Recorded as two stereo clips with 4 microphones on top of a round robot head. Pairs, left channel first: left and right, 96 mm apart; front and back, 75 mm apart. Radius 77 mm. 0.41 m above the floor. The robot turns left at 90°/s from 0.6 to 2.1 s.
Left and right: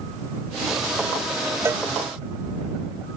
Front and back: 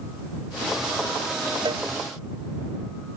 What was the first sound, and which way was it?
A cowbell, 150° right.